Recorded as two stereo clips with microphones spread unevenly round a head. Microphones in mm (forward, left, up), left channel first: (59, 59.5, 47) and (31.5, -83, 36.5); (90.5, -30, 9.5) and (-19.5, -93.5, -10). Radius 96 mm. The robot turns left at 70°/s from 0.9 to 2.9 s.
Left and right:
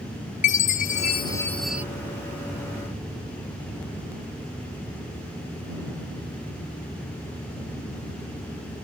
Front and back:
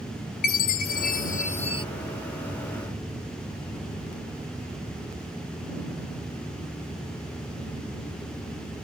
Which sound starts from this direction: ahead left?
A chime, at 0.4 s.